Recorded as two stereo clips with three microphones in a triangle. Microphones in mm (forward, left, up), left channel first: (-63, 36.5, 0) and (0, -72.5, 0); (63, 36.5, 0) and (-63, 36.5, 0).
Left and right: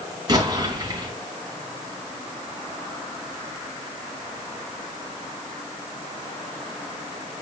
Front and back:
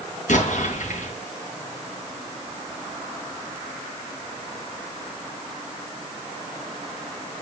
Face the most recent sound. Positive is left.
turn(degrees=0)